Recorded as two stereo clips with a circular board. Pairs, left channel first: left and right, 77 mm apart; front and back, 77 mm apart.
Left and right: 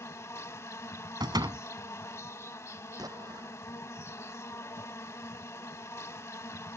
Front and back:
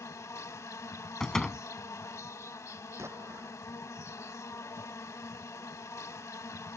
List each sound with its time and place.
0.0 s an insect: 40° left
1.2 s a door slam: 85° right
3.0 s an explosion: 125° right